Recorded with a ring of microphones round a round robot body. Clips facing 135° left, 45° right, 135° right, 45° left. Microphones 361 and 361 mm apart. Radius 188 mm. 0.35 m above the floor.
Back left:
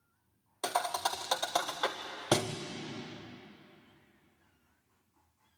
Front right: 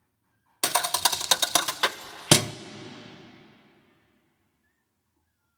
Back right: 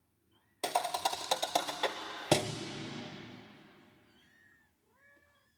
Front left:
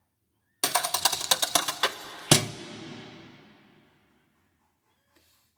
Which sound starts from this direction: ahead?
A thud, at 0.6 s.